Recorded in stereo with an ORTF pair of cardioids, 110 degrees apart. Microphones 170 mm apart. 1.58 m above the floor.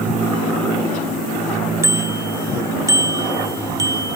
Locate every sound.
1.8 s a bicycle bell: 15° right; by 4.2 s 20° right